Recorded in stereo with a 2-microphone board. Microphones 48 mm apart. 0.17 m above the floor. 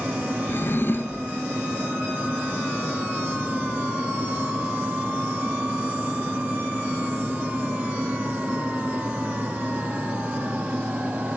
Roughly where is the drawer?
Left.